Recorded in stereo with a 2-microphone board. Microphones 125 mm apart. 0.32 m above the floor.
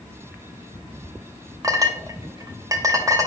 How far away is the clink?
About 0.7 m.